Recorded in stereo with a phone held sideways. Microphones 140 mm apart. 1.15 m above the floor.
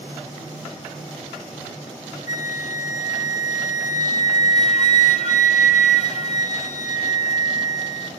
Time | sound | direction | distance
2.3 | a flute | 55° left (ahead or behind) | 0.6 m